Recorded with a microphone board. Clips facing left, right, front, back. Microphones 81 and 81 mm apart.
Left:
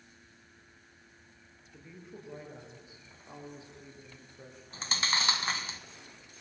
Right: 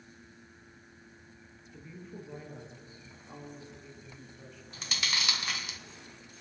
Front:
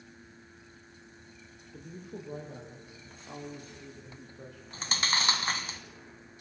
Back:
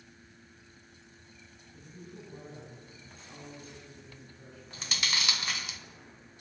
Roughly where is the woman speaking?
Ahead.